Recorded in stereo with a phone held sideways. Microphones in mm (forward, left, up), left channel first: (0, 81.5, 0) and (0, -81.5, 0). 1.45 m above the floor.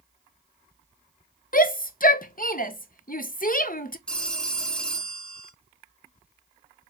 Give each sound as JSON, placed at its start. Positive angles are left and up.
{"t": 1.5, "sound": "a shout", "side_deg": 60, "distance_m": 0.7}
{"t": 4.1, "sound": "a phone ringing", "side_deg": 5, "distance_m": 1.0}